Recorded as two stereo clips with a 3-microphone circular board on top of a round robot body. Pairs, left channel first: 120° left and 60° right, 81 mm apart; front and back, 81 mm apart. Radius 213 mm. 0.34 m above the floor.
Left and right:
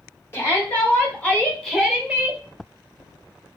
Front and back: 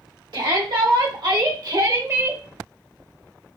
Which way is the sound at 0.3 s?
Straight behind.